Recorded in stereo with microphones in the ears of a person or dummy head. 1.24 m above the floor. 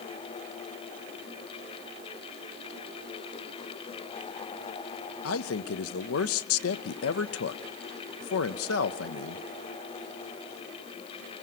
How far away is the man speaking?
About 0.8 m.